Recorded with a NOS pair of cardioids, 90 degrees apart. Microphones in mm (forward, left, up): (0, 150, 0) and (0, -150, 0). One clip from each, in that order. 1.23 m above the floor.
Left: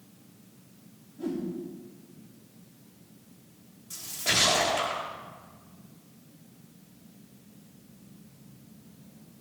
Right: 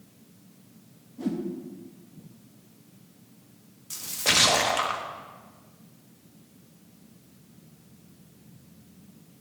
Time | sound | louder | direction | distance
1.2 | a whoosh | right 2 dB | 60° right | 1.6 m
3.9 | a splash | right 4 dB | 45° right | 1.0 m